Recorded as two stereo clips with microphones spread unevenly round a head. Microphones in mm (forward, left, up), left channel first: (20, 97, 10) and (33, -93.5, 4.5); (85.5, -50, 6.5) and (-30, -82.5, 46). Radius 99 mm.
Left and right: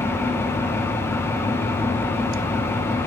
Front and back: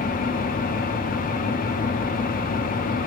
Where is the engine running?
15° left, 1.2 m.